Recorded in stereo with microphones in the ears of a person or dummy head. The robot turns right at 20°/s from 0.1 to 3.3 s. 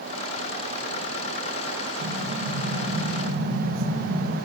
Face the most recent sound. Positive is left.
turn(degrees=-85)